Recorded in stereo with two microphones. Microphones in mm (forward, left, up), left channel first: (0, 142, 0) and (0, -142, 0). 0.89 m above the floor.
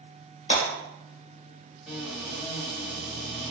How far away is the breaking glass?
About 1.2 m.